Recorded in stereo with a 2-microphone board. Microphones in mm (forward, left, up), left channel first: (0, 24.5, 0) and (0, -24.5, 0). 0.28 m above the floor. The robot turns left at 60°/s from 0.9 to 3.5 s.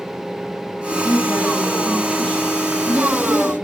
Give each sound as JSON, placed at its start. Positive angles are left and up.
{"t": 0.9, "sound": "a woman speaking", "azimuth_deg": -125, "distance_m": 3.0}